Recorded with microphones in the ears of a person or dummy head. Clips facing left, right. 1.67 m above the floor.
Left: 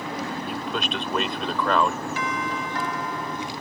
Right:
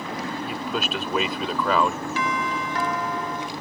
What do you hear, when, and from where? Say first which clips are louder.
0.5 s a man speaking: right 1 dB; 10° right (ahead or behind)
2.2 s a doorbell: right 2 dB; 60° right (ahead or behind)